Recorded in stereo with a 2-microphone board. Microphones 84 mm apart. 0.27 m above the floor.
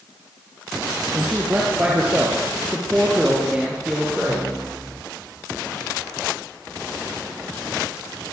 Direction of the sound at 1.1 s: 25° right (ahead or behind).